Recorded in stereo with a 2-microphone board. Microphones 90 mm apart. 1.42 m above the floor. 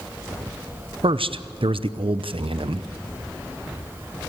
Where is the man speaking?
80° right, 0.6 m.